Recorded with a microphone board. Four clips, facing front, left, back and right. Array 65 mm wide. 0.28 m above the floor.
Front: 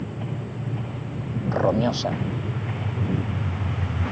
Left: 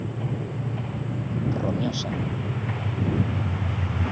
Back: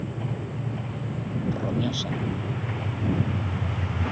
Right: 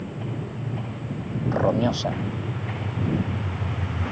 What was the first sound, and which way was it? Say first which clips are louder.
A man speaking: right 6 dB, front 8 dB; 35° right.